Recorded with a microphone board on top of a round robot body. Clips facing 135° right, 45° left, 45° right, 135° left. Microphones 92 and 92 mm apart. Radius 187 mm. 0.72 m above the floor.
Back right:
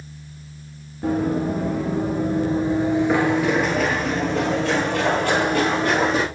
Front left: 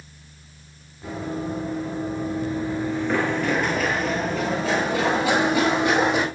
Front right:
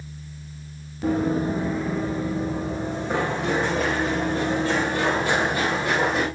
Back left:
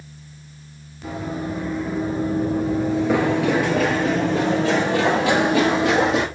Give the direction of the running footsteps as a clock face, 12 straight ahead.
3 o'clock.